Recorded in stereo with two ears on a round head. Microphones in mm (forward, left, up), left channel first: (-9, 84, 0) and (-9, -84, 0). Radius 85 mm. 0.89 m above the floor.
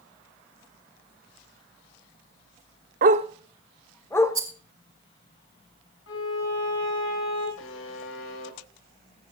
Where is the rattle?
20° right (ahead or behind), 2 m.